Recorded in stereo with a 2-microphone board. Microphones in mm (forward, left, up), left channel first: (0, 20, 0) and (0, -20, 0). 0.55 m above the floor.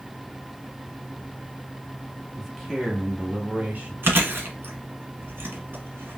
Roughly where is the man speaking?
Centre.